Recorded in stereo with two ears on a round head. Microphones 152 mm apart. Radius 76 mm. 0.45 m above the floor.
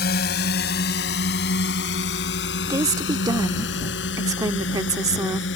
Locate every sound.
0.0 s a drone: 60° left (ahead or behind); by 5.6 s 80° left
2.7 s a woman speaking: 20° right (ahead or behind)